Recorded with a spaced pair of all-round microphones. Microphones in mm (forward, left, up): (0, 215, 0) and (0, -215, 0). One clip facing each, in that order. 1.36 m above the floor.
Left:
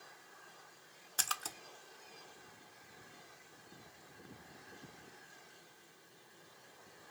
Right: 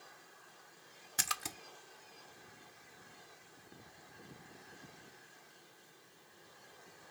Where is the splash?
45° right (ahead or behind), 0.6 m.